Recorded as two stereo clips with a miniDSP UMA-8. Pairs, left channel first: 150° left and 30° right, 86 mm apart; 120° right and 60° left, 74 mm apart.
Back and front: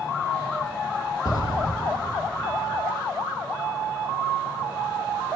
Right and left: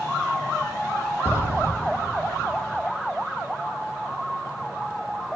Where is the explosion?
120° left, 1.6 m.